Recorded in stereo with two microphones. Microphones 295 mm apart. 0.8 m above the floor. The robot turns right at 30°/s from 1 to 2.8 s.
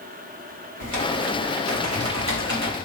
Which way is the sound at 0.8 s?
85° right.